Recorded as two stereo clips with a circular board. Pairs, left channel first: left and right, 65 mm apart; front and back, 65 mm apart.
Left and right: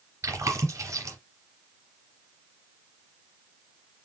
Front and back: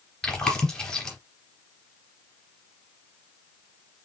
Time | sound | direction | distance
0.2 | chewing | 75° right | 2.5 m